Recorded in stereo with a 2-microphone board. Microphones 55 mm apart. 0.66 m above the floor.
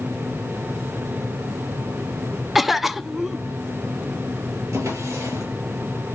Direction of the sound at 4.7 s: 75° right (ahead or behind).